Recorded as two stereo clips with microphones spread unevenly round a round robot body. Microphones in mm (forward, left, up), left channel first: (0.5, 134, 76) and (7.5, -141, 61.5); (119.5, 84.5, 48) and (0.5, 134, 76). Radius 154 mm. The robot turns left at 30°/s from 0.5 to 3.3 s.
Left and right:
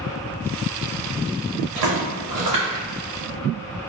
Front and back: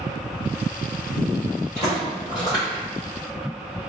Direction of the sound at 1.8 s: 90° right.